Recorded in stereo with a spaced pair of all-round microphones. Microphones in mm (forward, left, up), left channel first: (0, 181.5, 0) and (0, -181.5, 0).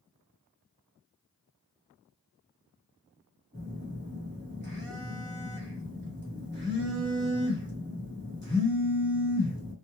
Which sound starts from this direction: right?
A phone buzzing, at 3.5 s.